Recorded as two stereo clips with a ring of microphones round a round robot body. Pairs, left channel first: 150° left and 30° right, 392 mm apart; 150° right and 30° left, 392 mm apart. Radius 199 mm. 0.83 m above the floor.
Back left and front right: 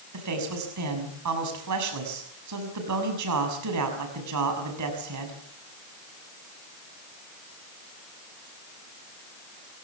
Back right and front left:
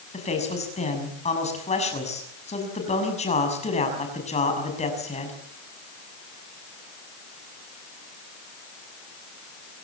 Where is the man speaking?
75° right, 6.5 m.